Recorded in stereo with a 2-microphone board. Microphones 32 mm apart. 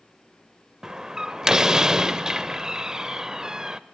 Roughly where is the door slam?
Centre.